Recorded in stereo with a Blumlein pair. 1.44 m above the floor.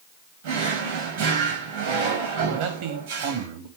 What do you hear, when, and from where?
0.4 s a drawer: 55° right, 5 m
2.5 s a man speaking: 45° right, 2.5 m